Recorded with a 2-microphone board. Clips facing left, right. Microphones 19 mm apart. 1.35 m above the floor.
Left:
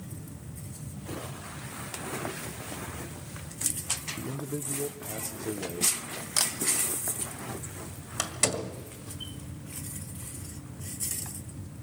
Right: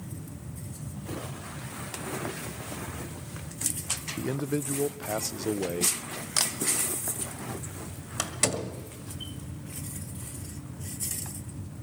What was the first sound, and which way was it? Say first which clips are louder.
A man speaking: right 5 dB; 60° right (ahead or behind).